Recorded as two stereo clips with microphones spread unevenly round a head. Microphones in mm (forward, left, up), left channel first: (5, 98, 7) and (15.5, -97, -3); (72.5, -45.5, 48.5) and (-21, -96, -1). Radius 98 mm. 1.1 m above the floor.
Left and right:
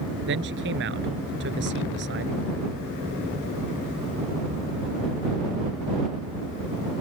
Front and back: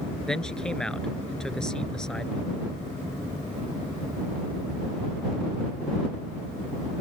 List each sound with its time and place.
0.3 s a man speaking: 55° right